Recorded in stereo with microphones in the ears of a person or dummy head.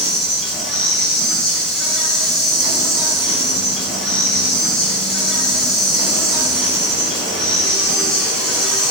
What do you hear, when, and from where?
0.0 s an insect: centre (ahead or behind), 5 m